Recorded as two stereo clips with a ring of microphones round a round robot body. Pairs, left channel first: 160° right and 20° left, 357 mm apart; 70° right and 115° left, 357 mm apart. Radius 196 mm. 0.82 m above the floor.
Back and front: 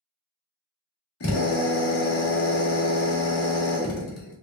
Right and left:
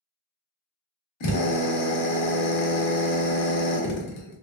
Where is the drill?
105° right, 1.1 m.